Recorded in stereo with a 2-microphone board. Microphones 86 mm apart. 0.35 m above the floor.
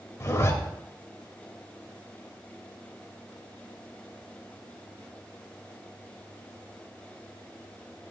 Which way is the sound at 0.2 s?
35° left (ahead or behind).